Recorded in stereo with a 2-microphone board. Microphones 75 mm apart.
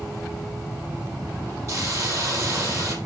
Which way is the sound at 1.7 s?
40° right (ahead or behind).